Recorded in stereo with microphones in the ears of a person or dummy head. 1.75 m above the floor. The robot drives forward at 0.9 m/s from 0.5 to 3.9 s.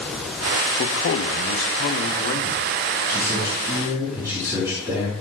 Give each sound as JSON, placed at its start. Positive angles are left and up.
{"t": 0.8, "sound": "a man speaking", "side_deg": 55, "distance_m": 1.1}
{"t": 3.1, "sound": "a man speaking", "side_deg": -15, "distance_m": 7.0}